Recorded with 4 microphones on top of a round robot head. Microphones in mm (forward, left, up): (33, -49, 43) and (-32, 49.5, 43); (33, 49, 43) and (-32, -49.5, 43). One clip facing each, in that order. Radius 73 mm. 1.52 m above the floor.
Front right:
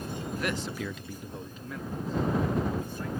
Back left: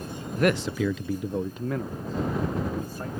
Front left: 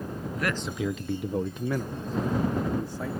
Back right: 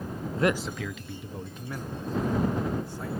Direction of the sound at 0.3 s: 175° left.